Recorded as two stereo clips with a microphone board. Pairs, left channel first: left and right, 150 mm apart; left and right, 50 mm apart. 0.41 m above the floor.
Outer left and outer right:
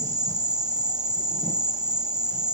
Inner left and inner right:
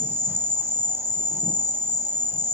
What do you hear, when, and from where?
0.0 s an insect: 50° right (ahead or behind), 0.9 m